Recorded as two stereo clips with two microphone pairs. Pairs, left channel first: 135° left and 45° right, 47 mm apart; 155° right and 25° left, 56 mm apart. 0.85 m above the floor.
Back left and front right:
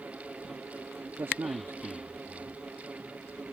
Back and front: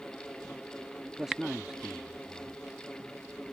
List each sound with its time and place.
1.2 s a man speaking: 50° right